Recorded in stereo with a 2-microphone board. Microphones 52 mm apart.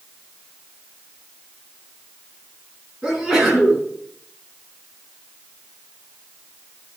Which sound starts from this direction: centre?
A sneeze, at 3.0 s.